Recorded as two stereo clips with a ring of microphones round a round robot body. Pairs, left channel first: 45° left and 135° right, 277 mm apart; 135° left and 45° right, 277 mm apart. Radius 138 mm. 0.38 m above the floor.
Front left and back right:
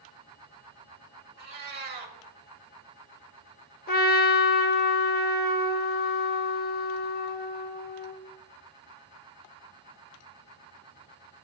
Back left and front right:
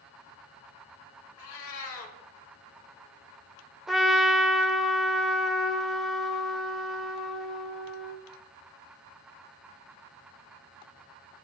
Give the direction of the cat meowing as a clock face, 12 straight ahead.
6 o'clock.